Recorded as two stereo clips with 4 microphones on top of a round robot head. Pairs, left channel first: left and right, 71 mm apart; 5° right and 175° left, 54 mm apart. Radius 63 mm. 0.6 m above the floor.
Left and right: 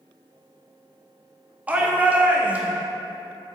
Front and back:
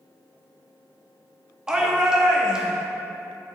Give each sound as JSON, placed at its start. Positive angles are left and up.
{"t": 1.7, "sound": "a shout", "azimuth_deg": -125, "distance_m": 0.9}